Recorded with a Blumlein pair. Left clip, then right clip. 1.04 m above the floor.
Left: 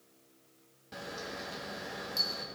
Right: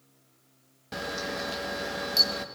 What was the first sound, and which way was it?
A camera shutter, 25° right.